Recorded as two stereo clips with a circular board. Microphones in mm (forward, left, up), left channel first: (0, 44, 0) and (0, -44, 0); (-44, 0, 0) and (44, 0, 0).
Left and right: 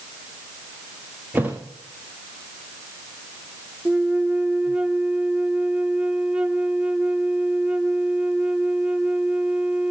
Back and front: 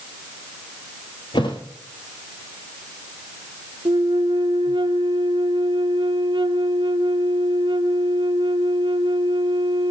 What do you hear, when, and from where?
1.3 s a thud: 160° right, 2.5 m
3.9 s a flute: 15° right, 0.7 m